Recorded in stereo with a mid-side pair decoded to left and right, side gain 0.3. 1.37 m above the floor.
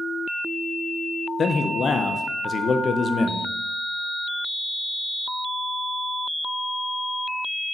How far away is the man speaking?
About 0.8 m.